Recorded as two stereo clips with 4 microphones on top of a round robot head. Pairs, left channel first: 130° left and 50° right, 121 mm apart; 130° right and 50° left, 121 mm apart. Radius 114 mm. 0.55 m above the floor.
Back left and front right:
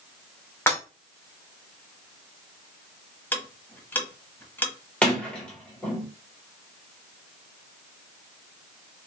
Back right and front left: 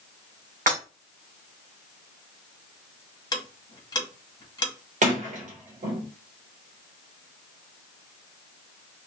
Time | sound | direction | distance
0.7 | breaking glass | 60° left | 1.9 m
3.3 | ticking | 165° right | 1.2 m
5.0 | a sliding door | 50° left | 1.8 m